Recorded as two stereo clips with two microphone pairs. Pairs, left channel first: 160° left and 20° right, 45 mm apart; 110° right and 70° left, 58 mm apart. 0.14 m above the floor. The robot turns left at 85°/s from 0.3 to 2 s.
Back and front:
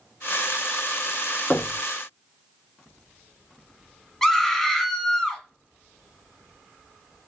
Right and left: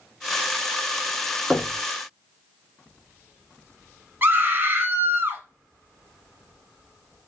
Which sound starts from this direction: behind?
Knocking, at 1.5 s.